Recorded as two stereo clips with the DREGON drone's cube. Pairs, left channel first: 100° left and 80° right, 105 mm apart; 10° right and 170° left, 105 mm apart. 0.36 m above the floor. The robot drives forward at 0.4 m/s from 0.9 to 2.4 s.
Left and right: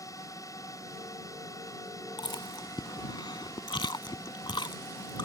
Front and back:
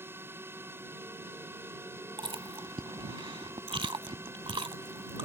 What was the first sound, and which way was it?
A drone, 120° left.